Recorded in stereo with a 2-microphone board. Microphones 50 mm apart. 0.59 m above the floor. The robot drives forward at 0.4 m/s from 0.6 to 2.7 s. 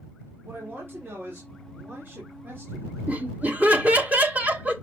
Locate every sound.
0.4 s a man speaking: 50° right (ahead or behind), 2.0 m
3.1 s laughter: 35° right (ahead or behind), 1.3 m